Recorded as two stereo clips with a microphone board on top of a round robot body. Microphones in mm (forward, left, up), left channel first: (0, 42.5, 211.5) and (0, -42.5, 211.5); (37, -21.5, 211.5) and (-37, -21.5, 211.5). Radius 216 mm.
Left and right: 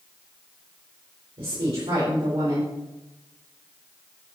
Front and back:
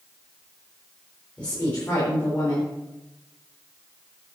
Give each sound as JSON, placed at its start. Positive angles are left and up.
{"t": 1.4, "sound": "a woman speaking", "azimuth_deg": -70, "distance_m": 4.0}